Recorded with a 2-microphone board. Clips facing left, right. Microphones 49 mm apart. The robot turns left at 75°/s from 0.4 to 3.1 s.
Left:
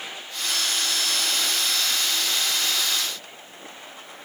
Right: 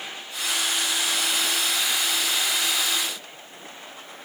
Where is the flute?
I don't hear a flute.